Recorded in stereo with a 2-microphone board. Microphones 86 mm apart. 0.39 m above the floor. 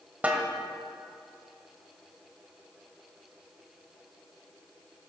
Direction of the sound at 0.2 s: 15° right (ahead or behind).